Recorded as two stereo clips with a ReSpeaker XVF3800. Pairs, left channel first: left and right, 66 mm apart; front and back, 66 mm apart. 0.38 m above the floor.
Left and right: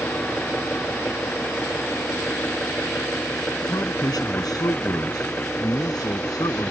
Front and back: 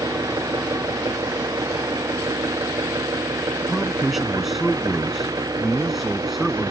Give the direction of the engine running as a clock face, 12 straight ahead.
7 o'clock.